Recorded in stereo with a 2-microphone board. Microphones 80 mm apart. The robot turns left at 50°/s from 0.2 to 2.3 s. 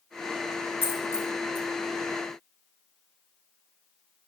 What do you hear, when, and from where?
0.8 s a dropped coin: 25° left (ahead or behind), 2.5 m; by 1.7 s 65° left (ahead or behind), 2.5 m